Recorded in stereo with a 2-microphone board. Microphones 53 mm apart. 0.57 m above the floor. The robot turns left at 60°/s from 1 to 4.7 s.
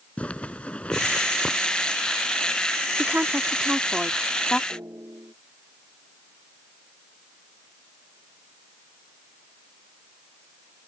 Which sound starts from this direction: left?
A zipper, at 0.2 s.